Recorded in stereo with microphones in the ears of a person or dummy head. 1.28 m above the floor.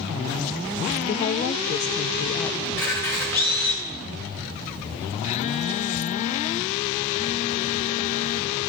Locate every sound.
1.1 s a woman speaking: 35° left (ahead or behind), 1.3 m
2.6 s a camera shutter: 10° left (ahead or behind), 9 m
5.2 s a phone buzzing: 35° left (ahead or behind), 0.8 m